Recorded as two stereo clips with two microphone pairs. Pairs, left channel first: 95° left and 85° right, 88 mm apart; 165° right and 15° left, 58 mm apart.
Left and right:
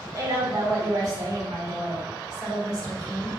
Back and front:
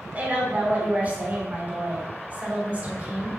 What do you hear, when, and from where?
0.1 s a woman speaking: 50° right, 3.5 m